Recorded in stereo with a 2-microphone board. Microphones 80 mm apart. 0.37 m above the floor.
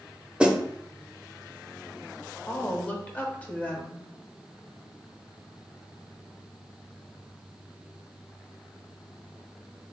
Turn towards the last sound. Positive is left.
turn(degrees=15)  # may be behind; listen again after turning